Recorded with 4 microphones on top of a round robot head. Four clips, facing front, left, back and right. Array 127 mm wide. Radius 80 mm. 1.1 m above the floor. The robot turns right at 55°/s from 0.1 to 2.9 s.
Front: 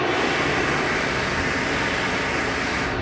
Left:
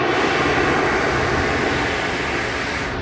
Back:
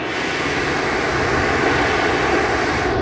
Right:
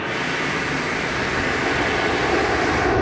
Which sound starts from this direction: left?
Running water, at 0.0 s.